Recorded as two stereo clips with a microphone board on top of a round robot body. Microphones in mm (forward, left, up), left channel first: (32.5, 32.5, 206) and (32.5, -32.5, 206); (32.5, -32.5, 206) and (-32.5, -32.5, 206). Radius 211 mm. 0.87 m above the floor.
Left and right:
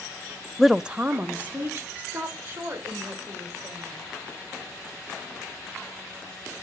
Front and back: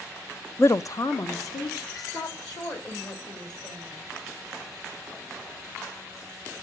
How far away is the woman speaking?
About 0.6 m.